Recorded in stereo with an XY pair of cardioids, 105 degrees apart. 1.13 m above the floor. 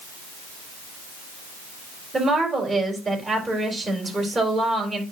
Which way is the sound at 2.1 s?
25° right.